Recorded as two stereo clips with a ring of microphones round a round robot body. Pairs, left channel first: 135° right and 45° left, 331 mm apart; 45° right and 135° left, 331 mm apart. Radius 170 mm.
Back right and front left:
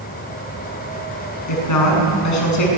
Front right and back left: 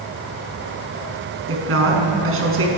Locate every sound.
1.5 s a woman speaking: 175° right, 7 m